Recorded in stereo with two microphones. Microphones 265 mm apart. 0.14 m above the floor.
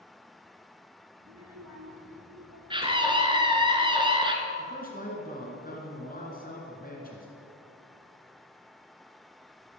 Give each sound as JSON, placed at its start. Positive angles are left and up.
{"t": 1.2, "sound": "a child speaking", "side_deg": -75, "distance_m": 5.5}
{"t": 2.7, "sound": "a scream", "side_deg": -20, "distance_m": 2.0}
{"t": 4.6, "sound": "a man speaking", "side_deg": 35, "distance_m": 2.0}